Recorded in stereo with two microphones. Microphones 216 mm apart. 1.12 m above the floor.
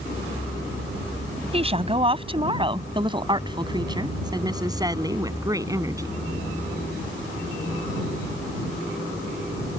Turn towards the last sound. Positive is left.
turn(degrees=-15)  # may be behind; listen again after turning